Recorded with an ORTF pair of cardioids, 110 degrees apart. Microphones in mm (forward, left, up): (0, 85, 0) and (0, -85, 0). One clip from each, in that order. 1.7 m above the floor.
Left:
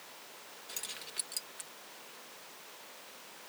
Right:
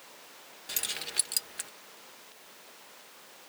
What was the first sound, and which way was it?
Keys jangling, 55° right.